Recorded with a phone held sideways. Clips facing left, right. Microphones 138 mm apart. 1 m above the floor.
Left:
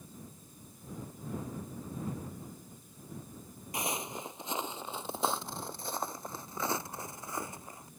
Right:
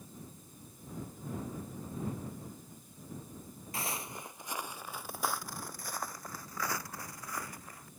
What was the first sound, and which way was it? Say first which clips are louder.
Footsteps: left 4 dB; 20° left (ahead or behind).